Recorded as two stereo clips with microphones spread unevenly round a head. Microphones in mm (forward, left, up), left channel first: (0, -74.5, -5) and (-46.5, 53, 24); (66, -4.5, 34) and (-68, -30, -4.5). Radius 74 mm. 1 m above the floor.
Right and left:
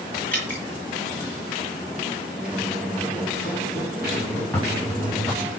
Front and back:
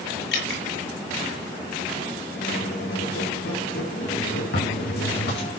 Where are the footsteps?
15° left, 9 m; by 5.6 s 20° left, 9 m.